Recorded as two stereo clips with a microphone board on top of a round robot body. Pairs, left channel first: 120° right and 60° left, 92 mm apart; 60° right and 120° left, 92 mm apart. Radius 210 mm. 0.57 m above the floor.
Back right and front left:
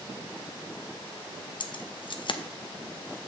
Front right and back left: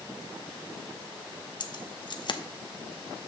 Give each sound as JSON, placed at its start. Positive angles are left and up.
{"t": 1.6, "sound": "keys jangling", "azimuth_deg": -90, "distance_m": 0.8}